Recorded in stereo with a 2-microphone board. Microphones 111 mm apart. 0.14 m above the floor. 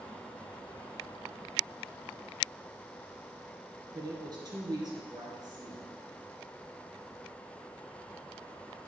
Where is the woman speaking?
40° right (ahead or behind), 2 m.